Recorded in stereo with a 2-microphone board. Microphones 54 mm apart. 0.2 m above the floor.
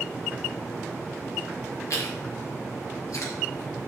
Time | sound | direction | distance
1.9 | chewing | 70° left (ahead or behind) | 5 m